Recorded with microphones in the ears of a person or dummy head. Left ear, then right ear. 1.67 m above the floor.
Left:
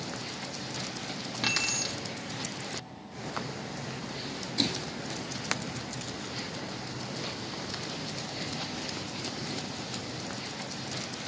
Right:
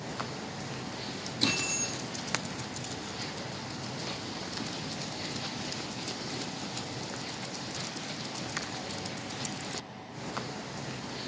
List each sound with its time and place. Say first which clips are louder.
1.4 s keys jangling: left 1 dB; 50° left (ahead or behind), 1.3 m